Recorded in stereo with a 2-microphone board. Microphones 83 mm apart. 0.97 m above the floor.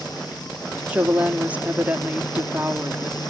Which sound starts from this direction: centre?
A woman speaking, at 0.9 s.